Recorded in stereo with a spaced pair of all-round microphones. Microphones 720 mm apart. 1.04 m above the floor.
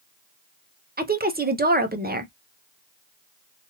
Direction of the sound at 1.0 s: 15° right (ahead or behind).